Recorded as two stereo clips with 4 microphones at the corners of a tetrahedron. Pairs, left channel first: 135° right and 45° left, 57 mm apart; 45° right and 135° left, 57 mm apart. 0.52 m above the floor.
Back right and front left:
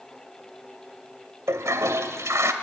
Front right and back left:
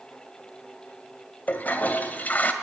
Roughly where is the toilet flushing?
Ahead.